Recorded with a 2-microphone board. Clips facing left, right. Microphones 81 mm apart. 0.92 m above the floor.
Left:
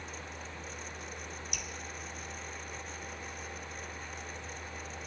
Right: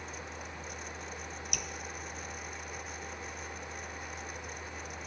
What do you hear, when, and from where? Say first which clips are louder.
1.5 s dripping: right 2 dB; 60° right (ahead or behind), 0.9 m